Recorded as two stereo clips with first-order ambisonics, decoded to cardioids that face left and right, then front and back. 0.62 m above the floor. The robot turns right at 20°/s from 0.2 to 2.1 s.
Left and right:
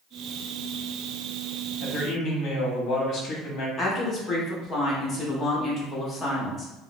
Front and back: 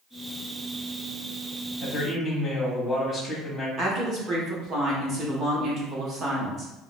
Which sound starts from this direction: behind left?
A woman speaking, at 3.8 s.